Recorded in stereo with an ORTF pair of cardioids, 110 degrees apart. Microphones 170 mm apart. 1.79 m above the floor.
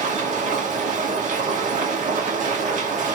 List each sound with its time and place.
0.0 s a machine running: 50° right, 1.8 m